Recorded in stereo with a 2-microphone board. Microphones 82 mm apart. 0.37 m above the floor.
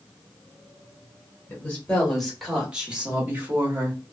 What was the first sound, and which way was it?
A woman speaking, 20° left (ahead or behind).